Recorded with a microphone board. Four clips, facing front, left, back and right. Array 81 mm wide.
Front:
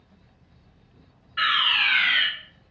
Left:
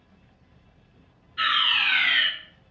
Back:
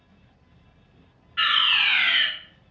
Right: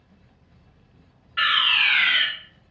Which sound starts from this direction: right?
A fire alarm, at 1.4 s.